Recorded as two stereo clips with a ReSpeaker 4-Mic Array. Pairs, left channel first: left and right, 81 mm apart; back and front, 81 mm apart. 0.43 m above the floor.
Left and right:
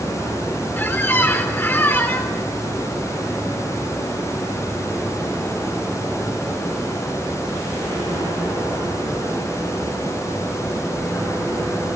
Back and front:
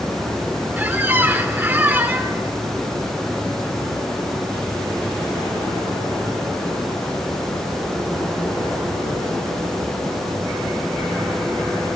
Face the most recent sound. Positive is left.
turn(degrees=45)